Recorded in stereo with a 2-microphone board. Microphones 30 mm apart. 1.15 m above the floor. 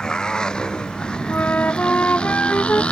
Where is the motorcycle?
25° left (ahead or behind); by 2.9 s 40° left (ahead or behind).